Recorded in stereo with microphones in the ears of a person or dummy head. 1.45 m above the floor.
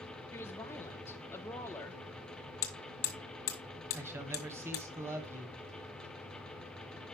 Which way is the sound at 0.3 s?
10° left (ahead or behind).